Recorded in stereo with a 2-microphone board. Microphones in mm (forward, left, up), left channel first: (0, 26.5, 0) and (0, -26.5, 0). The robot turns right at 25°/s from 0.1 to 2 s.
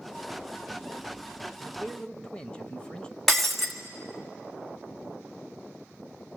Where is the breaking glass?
5° left (ahead or behind), 1.7 m.